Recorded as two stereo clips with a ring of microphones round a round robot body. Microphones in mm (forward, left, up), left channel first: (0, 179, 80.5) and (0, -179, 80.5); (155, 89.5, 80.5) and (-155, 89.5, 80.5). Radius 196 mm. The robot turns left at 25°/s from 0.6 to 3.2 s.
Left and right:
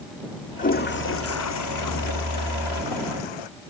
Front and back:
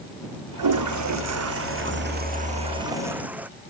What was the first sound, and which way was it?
A toilet flushing, 160° left.